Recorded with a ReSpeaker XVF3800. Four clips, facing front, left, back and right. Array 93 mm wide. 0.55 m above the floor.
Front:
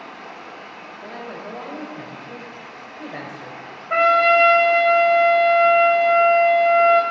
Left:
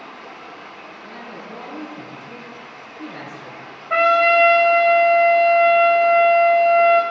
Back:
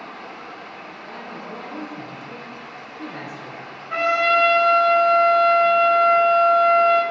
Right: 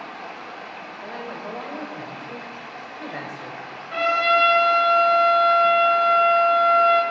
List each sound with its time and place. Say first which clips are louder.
0.0 s running water: right 2 dB, back 1 dB; 80° right, 2.5 m
1.0 s a man speaking: right 4 dB, front 3 dB; 50° right, 2.5 m
3.9 s a trumpet: left 5 dB, front 4 dB; 55° left, 1.4 m